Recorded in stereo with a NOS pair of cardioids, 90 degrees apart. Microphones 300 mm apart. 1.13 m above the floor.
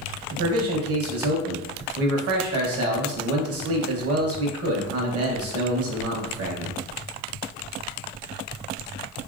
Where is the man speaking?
50° right, 1.1 m.